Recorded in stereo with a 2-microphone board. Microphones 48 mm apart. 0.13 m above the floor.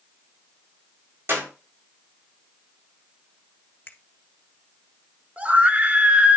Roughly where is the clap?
Right.